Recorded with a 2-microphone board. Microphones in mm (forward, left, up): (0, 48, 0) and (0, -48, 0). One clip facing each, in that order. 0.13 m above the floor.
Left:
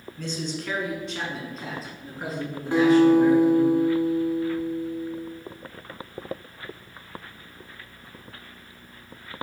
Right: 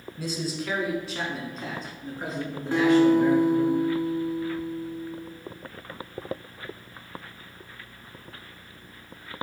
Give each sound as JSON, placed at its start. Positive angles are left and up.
{"t": 0.2, "sound": "a man speaking", "side_deg": -10, "distance_m": 1.2}
{"t": 2.7, "sound": "a guitar", "side_deg": 20, "distance_m": 1.8}